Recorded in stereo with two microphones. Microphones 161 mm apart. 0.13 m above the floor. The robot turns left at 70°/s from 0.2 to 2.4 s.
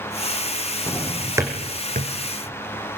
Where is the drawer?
20° left (ahead or behind), 3 m; by 2.1 s 65° right (ahead or behind), 3 m.